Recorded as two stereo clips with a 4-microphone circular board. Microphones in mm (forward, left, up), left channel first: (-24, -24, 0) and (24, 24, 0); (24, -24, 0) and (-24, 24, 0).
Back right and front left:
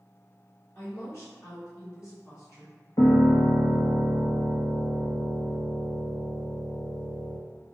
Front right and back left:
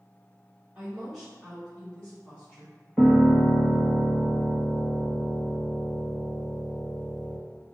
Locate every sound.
0.8 s a woman speaking: 150° right, 1.8 m; by 2.8 s 105° right, 3 m
3.0 s a piano: 140° right, 1.1 m